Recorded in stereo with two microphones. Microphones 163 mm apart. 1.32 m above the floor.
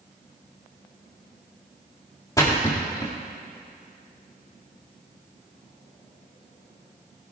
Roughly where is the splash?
Left.